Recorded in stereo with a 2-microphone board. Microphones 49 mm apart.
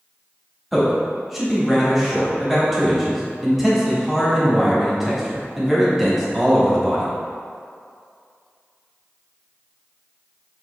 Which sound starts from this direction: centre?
A man speaking, at 0.7 s.